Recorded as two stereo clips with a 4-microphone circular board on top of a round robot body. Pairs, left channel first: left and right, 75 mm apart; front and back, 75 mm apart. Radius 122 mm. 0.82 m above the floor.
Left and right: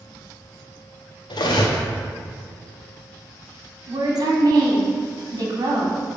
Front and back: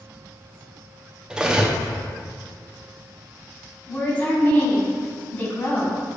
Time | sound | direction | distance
1.3 | cutlery clinking | 100° left | 0.9 m
3.9 | a woman speaking | 65° right | 1.8 m